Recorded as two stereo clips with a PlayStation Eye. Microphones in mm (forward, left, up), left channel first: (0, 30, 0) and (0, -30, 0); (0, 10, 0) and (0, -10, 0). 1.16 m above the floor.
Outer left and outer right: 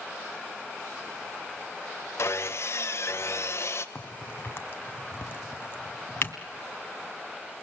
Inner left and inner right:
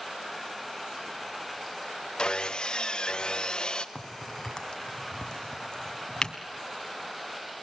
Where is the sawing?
50° left (ahead or behind), 1.1 m.